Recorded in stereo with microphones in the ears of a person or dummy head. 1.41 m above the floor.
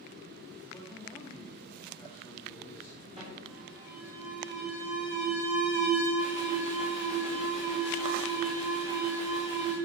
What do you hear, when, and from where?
0.7 s a man speaking: 10° left (ahead or behind), 2.5 m
3.2 s an alarm: 30° right (ahead or behind), 6 m